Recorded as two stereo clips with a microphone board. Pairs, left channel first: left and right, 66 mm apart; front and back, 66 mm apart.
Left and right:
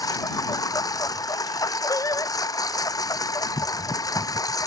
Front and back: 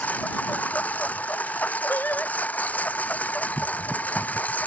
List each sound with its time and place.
0.0 s a lawn mower: 65° left
1.9 s singing: 60° left